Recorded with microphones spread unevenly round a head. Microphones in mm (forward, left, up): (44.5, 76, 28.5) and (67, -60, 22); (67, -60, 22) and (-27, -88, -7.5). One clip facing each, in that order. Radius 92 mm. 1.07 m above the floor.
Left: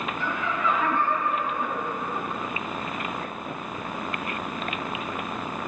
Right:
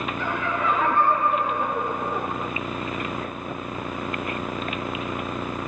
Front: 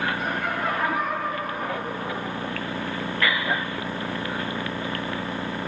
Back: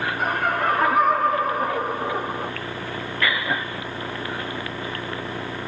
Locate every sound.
0.2 s laughter: 130° right, 5.5 m